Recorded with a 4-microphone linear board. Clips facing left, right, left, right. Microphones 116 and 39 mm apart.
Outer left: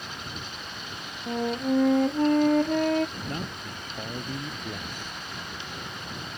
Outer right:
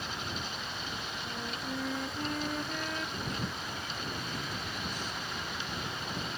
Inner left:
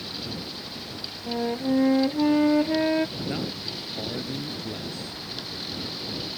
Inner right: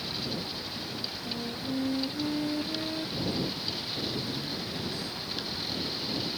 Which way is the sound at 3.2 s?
55° left (ahead or behind).